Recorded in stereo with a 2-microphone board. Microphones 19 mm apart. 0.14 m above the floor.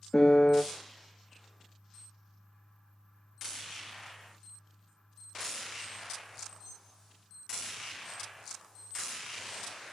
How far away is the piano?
About 0.5 m.